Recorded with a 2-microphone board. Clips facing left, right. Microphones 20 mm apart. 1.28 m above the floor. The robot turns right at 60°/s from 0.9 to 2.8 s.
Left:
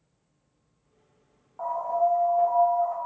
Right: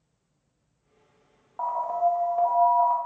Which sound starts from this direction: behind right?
An alarm, at 1.6 s.